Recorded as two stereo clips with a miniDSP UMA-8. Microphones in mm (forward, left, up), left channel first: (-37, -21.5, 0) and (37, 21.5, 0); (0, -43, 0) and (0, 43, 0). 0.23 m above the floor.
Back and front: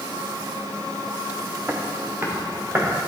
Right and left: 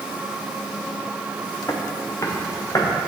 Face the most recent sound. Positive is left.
turn(degrees=-35)